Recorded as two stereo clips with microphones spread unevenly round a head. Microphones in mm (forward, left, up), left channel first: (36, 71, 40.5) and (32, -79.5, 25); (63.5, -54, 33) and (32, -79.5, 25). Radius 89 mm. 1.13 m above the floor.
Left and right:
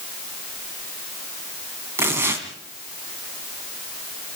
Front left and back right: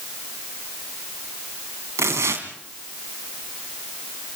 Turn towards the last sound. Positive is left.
turn(degrees=-170)